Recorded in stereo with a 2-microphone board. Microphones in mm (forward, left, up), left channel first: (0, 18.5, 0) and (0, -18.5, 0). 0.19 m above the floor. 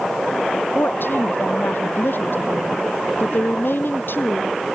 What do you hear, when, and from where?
0.8 s a woman speaking: 75° left (ahead or behind)